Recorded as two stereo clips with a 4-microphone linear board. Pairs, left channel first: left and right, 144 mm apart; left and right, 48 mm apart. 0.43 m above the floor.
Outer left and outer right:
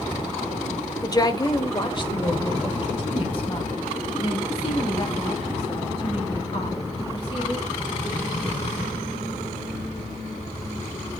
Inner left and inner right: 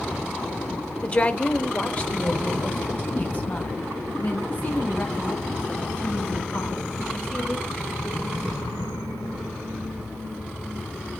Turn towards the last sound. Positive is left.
turn(degrees=45)  # may be behind; listen again after turning